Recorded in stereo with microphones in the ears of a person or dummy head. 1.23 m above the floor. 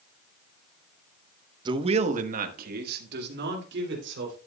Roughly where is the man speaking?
Right.